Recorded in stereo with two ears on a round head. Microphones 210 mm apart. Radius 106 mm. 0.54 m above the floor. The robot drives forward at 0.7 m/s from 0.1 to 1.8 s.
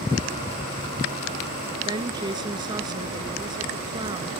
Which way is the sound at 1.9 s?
20° right (ahead or behind).